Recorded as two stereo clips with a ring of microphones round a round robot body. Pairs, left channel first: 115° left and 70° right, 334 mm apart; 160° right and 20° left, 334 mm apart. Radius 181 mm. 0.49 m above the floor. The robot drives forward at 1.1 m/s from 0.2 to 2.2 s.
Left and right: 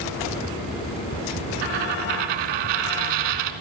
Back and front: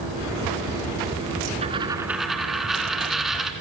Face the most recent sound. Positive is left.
turn(degrees=-65)